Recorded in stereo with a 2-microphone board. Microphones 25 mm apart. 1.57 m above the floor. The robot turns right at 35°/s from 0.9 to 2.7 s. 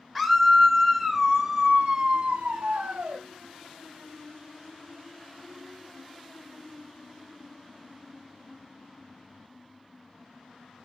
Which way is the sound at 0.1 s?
175° right.